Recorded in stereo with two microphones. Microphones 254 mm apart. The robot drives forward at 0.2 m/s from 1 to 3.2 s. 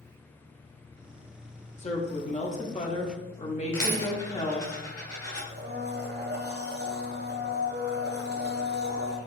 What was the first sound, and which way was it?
A woman speaking, 25° left (ahead or behind).